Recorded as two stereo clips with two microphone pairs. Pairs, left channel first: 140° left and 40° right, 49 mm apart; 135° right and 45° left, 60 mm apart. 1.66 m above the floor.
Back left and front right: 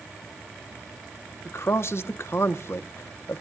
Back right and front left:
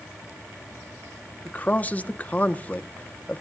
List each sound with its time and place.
1.4 s a man speaking: 165° left, 1.1 m